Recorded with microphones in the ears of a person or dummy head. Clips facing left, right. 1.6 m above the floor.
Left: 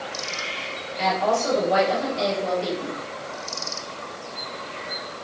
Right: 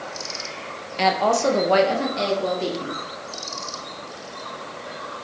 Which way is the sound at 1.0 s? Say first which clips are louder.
Right 3 dB; 65° right (ahead or behind).